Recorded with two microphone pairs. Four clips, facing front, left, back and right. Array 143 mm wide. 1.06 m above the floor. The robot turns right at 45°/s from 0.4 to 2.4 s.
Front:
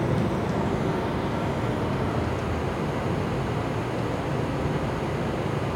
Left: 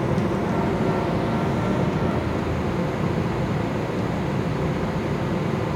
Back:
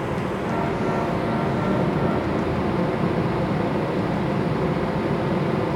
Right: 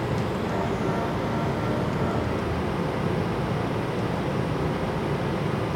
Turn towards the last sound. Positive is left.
turn(degrees=160)